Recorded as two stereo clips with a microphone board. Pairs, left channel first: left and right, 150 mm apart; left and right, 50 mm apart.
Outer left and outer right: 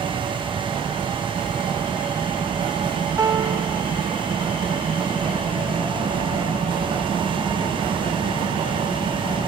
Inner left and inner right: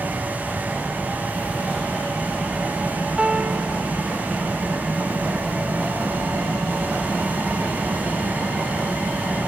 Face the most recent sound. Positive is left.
turn(degrees=-20)  # may be behind; listen again after turning